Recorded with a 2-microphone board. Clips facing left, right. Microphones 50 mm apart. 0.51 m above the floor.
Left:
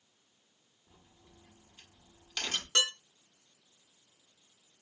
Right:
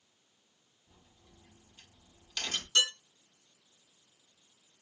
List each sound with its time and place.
0.9 s a crack: 15° left (ahead or behind), 1.6 m
2.8 s dishes clattering: 75° left (ahead or behind), 1.6 m